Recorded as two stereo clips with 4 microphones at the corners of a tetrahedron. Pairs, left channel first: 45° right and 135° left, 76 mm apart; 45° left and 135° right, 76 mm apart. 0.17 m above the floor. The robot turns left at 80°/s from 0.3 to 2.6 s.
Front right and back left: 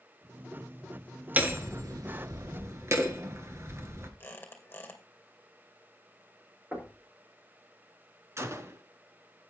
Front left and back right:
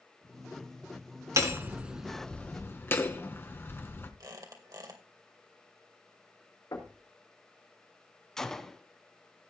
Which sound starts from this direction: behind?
Hammering, at 1.4 s.